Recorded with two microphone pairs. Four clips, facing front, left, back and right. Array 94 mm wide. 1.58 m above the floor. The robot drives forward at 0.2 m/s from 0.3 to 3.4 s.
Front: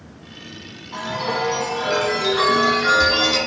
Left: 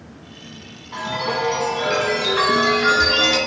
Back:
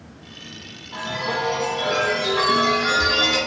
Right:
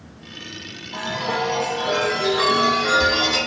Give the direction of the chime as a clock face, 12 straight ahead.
10 o'clock.